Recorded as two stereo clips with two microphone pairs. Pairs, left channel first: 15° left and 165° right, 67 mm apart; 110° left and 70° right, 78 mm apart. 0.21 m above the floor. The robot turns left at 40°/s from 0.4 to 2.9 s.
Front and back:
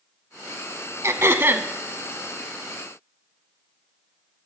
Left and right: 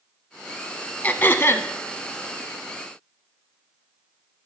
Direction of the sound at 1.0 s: 175° left.